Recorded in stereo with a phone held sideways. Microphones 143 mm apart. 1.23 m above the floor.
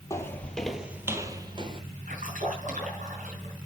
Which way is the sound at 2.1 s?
70° right (ahead or behind).